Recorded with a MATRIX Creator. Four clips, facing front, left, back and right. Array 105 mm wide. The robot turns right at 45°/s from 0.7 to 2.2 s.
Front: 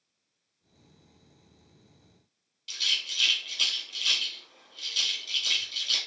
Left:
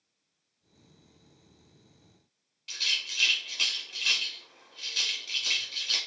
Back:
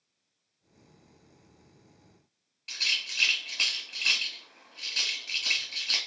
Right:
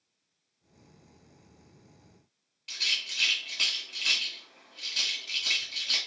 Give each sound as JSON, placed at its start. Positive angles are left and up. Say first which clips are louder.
{"t": 2.7, "sound": "a rattle", "louder": "even, back 1 dB", "azimuth_deg": -170, "distance_m": 1.2}